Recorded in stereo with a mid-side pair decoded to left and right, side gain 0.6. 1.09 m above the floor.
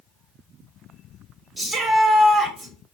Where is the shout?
25° right, 3 m.